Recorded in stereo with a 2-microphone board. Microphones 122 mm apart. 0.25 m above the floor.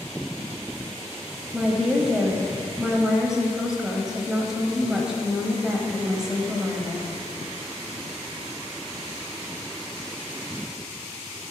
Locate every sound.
1.5 s a woman speaking: 5° right (ahead or behind), 1.1 m